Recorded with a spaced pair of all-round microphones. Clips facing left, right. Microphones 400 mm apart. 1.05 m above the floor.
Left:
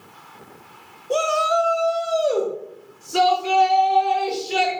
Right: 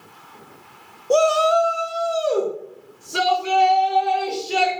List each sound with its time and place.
1.1 s a shout: 60° right (ahead or behind), 0.5 m; by 4.7 s 15° left (ahead or behind), 2 m